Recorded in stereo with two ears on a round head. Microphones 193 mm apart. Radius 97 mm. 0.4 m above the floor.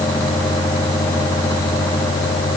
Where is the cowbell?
No cowbell in this recording.